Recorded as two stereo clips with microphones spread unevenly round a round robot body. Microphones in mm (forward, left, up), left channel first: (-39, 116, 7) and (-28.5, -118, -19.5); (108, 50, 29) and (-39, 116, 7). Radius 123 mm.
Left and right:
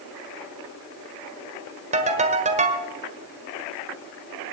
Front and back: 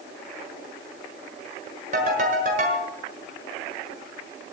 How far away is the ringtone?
About 1.4 m.